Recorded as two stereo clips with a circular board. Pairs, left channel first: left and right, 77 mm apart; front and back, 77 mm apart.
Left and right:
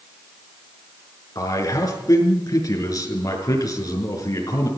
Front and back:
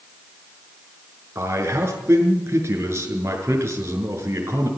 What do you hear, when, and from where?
1.4 s a man speaking: 125° left, 5.5 m